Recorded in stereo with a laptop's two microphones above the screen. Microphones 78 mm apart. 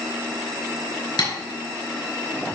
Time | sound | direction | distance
1.2 | tapping | 65° left (ahead or behind) | 4.5 m